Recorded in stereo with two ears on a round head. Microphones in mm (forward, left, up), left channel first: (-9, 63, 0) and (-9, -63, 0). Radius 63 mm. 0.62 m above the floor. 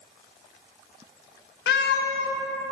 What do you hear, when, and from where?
1.7 s a cat meowing: 80° left, 0.6 m